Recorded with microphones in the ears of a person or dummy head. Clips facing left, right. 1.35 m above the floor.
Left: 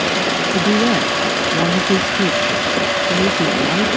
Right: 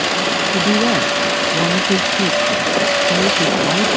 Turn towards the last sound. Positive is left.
turn(degrees=10)  # may be behind; listen again after turning